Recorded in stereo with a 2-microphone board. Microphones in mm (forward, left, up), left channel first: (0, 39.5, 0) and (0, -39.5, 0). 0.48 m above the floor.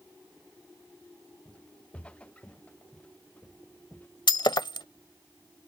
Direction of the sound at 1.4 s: 15° left (ahead or behind).